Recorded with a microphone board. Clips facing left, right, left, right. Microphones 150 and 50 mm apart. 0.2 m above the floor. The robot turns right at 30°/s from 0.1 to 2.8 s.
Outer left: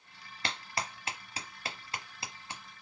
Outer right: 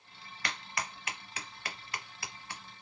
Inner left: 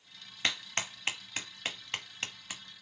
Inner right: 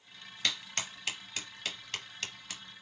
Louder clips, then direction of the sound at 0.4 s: Outer left 2 dB, inner left 2 dB; 30° left (ahead or behind).